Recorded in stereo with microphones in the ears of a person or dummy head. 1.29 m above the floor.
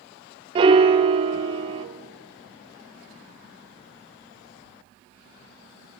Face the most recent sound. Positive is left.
turn(degrees=-25)  # may be behind; listen again after turning